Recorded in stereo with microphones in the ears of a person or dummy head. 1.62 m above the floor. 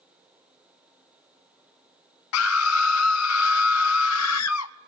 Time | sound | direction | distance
2.3 | a scream | 80° left | 0.6 m